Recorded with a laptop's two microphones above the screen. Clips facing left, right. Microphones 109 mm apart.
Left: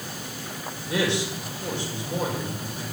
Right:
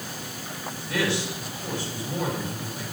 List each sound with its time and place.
0.9 s a man speaking: 30° left (ahead or behind), 4.5 m